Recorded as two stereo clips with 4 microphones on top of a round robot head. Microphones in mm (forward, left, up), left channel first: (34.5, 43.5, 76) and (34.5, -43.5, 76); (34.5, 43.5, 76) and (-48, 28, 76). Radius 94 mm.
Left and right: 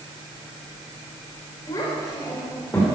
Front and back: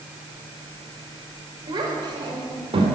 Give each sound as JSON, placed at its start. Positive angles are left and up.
{"t": 1.7, "sound": "a child speaking", "azimuth_deg": 150, "distance_m": 4.0}